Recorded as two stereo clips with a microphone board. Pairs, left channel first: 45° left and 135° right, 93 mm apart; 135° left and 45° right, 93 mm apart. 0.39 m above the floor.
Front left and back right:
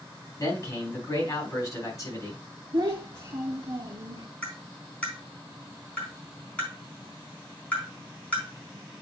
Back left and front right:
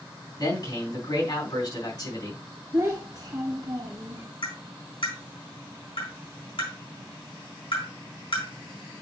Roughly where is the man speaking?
Left.